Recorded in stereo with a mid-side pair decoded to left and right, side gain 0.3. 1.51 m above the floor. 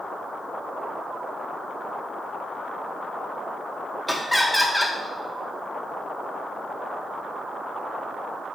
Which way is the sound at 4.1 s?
5° left.